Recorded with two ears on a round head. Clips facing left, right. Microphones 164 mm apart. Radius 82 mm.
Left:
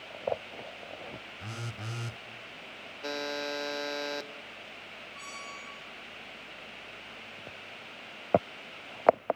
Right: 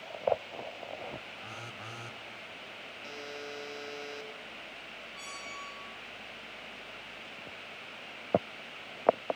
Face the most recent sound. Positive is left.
turn(degrees=-10)  # may be behind; listen again after turning